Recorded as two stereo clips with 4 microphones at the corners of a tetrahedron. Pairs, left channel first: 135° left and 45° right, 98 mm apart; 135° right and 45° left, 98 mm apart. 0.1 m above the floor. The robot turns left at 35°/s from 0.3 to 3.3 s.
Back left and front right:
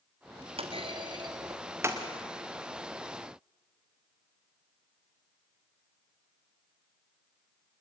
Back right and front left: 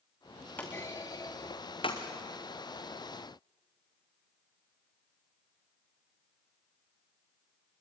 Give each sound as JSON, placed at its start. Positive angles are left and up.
{"t": 0.6, "sound": "a clunk", "azimuth_deg": -65, "distance_m": 3.0}